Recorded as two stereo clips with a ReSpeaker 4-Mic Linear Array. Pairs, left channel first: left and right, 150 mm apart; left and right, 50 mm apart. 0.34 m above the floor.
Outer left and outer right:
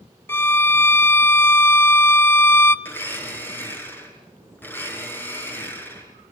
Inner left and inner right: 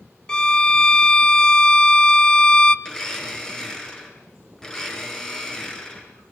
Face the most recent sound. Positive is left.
turn(degrees=15)  # may be behind; listen again after turning